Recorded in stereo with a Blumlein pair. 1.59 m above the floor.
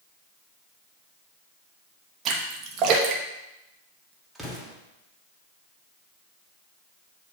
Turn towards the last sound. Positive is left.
turn(degrees=0)